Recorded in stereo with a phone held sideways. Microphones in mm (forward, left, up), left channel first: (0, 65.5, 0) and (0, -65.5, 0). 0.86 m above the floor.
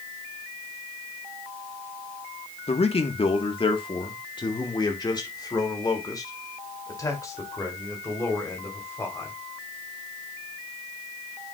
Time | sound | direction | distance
2.7 | a man speaking | 50° left (ahead or behind) | 1.6 m